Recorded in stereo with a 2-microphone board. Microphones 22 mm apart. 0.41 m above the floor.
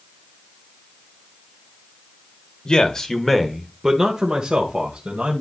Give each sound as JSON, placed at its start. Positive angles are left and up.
{"t": 2.6, "sound": "a man speaking", "side_deg": 35, "distance_m": 1.4}